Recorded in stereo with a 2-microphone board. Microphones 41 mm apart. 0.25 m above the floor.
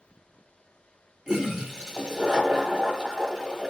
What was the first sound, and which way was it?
A toilet flushing, 20° right (ahead or behind).